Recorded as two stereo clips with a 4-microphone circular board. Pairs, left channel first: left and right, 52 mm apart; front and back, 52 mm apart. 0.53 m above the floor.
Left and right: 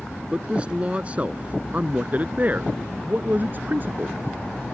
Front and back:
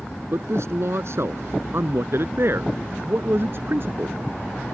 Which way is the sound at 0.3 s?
155° right.